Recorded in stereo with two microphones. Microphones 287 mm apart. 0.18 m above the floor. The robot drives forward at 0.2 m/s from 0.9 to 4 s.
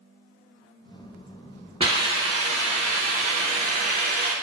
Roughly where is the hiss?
Centre.